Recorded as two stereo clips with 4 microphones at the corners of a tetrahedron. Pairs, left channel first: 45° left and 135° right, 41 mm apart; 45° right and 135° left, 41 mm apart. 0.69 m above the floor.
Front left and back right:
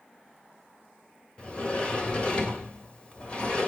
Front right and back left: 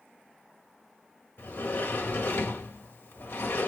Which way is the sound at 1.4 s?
20° right.